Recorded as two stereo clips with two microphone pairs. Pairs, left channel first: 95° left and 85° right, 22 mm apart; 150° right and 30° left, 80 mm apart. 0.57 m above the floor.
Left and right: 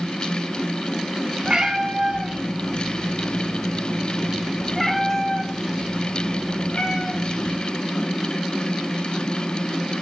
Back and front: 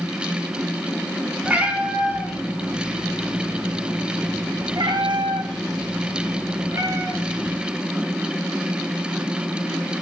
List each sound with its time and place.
1.4 s a cat meowing: 45° right, 2 m; by 7.6 s 85° left, 1.6 m